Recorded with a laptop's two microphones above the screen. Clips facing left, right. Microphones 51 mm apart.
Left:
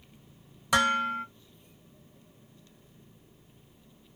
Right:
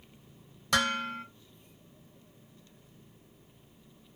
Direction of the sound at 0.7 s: 10° left (ahead or behind).